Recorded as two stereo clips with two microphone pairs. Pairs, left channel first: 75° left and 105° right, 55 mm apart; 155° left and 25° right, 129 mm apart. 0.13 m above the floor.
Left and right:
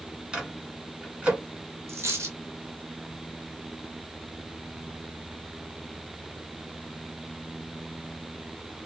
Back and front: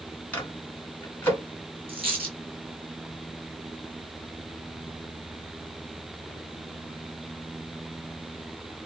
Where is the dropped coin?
70° right, 1.5 m.